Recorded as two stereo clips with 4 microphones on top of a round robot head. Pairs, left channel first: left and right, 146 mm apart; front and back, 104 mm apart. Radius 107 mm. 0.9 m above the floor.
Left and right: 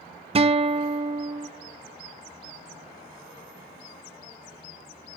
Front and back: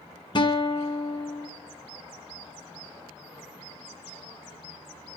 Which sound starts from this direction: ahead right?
A guitar, at 0.3 s.